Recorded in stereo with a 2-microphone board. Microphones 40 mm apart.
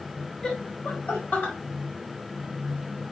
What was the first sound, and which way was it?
Laughter, 25° left (ahead or behind).